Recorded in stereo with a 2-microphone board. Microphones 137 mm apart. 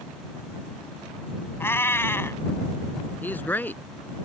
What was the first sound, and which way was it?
A cat meowing, 15° left (ahead or behind).